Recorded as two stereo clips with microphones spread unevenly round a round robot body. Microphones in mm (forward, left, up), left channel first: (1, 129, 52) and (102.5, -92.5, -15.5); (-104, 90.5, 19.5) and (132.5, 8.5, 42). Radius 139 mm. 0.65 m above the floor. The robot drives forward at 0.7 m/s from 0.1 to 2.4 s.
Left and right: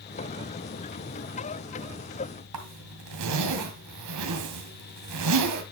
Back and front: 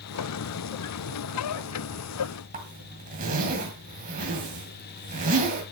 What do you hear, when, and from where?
2.5 s a zipper: 85° right, 2 m